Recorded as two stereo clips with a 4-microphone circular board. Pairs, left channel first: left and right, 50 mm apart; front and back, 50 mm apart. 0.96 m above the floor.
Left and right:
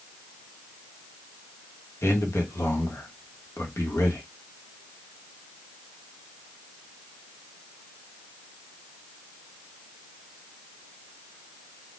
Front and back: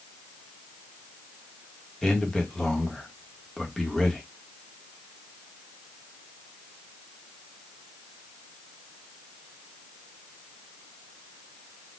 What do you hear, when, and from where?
2.0 s a man speaking: 80° left, 1.1 m